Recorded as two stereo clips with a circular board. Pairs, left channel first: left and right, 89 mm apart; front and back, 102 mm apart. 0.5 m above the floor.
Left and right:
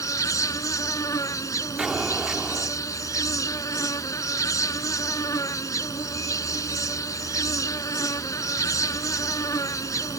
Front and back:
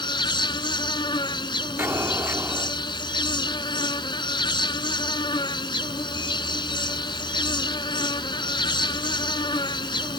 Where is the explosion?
160° right.